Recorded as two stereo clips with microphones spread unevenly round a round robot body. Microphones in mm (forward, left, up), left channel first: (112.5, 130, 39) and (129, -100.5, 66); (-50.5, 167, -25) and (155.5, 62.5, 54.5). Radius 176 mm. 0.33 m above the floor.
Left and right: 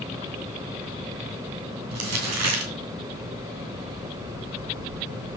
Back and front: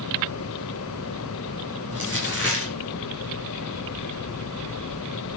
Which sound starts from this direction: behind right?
Crumpling, at 1.9 s.